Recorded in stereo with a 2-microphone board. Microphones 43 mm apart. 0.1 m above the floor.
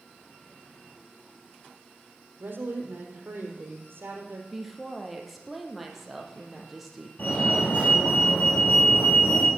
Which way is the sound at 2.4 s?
60° right (ahead or behind).